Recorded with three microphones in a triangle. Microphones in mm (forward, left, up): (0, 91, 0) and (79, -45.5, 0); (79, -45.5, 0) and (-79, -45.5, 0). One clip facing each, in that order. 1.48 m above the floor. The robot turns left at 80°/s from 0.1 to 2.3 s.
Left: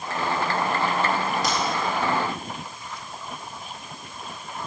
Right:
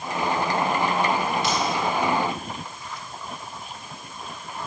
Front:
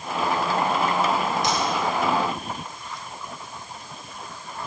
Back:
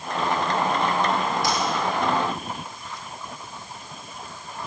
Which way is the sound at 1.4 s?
70° left.